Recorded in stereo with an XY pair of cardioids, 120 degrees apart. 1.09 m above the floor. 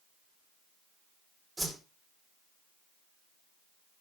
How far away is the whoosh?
About 3 m.